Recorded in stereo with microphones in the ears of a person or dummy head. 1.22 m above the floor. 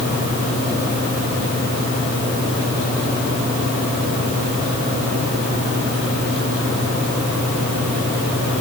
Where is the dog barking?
No dog barking in this recording.